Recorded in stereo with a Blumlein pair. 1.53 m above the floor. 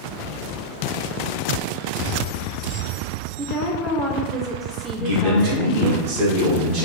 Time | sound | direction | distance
3.4 | a woman speaking | 10° right | 0.7 m
5.0 | a man speaking | 50° right | 1.8 m